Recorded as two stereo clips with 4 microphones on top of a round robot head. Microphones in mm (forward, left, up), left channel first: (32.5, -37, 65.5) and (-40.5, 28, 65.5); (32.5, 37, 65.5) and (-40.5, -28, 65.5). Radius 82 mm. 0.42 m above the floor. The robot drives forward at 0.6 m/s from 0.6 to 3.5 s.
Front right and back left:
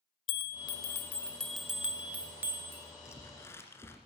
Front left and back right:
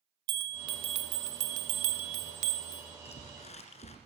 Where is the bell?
85° right, 0.7 m; by 2.9 s 155° right, 1.5 m.